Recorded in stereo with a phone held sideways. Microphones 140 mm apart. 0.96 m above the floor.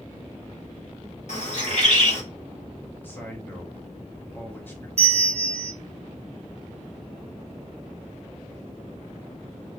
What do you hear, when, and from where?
1.3 s a bird: 60° left (ahead or behind), 1.7 m
3.0 s a man speaking: 15° left (ahead or behind), 1.4 m
5.0 s a bell: 55° right (ahead or behind), 0.6 m